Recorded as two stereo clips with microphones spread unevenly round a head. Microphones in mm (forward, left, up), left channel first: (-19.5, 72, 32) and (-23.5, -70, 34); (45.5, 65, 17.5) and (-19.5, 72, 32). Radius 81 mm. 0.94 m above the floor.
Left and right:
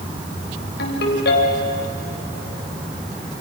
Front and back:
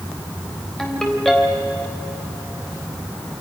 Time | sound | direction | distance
0.8 | a ringtone | 75° left | 4 m